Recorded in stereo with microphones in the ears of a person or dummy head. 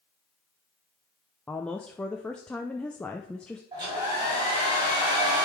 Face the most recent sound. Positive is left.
turn(degrees=-20)  # may be behind; listen again after turning